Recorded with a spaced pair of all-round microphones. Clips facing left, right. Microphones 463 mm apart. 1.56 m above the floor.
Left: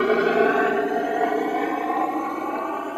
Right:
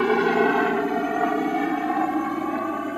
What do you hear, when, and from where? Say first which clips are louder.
0.0 s a helicopter: left 1 dB; 10° right (ahead or behind); by 3.0 s 40° right (ahead or behind)